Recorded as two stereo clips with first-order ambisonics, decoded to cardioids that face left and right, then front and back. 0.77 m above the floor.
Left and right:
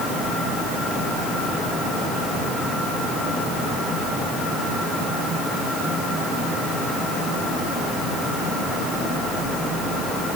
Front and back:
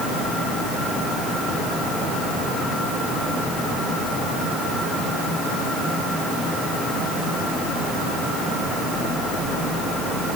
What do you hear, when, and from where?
Only background noise.